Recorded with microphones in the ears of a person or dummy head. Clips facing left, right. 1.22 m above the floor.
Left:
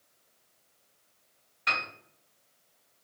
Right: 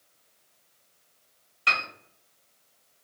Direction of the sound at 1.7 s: 45° right (ahead or behind).